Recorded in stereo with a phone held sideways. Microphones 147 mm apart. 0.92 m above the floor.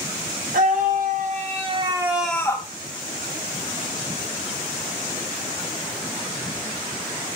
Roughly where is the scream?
Right.